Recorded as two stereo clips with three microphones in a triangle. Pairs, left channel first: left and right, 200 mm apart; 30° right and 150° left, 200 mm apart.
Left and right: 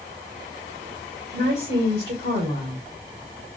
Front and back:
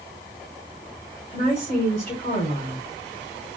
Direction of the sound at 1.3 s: 80° right.